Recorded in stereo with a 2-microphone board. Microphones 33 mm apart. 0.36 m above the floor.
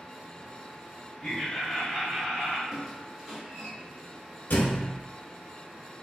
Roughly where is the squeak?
Centre.